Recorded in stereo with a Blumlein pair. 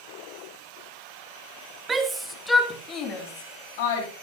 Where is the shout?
15° right, 1.9 m; by 4.1 s 55° left, 3 m.